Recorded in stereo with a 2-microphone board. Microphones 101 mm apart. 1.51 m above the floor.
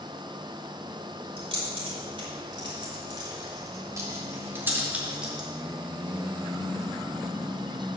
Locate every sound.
1.4 s keys jangling: 55° right (ahead or behind), 4 m; by 5.5 s 5° right (ahead or behind), 2.5 m